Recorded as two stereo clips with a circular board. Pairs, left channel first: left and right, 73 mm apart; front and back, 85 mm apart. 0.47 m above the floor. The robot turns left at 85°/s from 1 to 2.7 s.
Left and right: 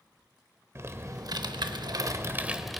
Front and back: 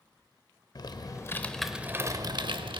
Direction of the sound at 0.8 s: 35° right.